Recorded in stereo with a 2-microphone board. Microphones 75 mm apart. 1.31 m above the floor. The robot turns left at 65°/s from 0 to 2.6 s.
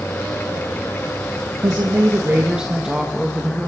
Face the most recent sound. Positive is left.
turn(degrees=-170)